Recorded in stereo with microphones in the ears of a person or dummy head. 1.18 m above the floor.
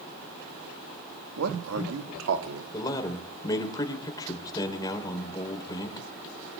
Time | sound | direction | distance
1.4 | a man speaking | 85° right | 1.6 m
2.7 | a man speaking | 25° left (ahead or behind) | 3.5 m